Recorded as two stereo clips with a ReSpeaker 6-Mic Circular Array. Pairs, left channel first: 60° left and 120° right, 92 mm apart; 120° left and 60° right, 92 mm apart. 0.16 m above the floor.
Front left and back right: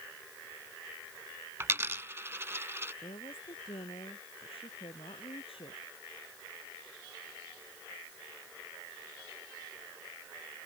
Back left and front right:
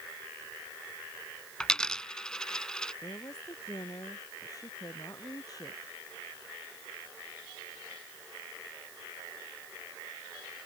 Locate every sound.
1.6 s a dropped coin: 165° right
3.0 s a woman speaking: 70° left